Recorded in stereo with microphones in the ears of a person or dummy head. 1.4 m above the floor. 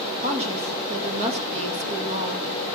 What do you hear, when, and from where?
0.2 s a woman speaking: 35° right (ahead or behind), 2.5 m